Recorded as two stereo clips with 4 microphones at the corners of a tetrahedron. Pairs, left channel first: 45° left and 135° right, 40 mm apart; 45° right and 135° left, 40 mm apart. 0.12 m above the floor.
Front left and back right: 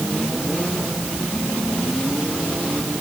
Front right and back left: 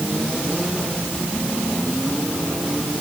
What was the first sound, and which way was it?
Only background noise.